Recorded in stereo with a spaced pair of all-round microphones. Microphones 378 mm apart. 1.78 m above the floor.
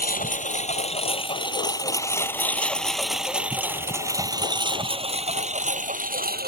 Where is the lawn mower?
20° left (ahead or behind); by 6.5 s 25° right (ahead or behind).